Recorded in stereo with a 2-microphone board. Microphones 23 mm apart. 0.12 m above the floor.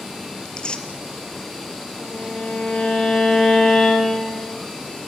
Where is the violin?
55° left (ahead or behind), 10 m.